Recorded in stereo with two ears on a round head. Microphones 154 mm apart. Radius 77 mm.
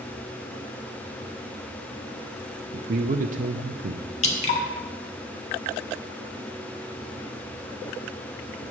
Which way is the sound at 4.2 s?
40° left (ahead or behind).